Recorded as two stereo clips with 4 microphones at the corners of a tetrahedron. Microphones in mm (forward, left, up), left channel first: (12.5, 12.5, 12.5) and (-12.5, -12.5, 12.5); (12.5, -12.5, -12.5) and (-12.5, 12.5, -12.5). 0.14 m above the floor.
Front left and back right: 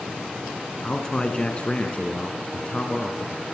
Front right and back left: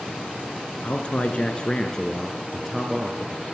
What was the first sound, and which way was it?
A man speaking, 15° right.